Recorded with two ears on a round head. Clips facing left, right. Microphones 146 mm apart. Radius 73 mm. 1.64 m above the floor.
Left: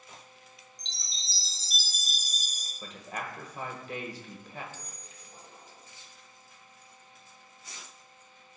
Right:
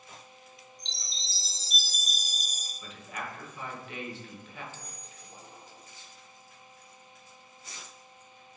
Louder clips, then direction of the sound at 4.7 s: Right 1 dB; 20° right (ahead or behind).